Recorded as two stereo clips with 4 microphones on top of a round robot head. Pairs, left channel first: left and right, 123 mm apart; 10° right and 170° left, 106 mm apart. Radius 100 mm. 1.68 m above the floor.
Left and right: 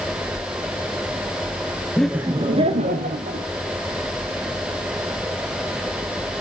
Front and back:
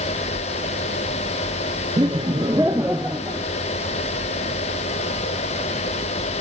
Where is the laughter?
165° left, 0.6 m; by 3.5 s 105° right, 1.5 m.